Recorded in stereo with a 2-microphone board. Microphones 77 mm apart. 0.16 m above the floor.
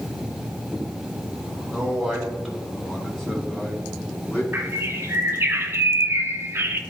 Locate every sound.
1.7 s a man speaking: 10° right (ahead or behind), 2 m; by 4.4 s 20° left (ahead or behind), 1.7 m
4.5 s a bird: 30° right (ahead or behind), 0.8 m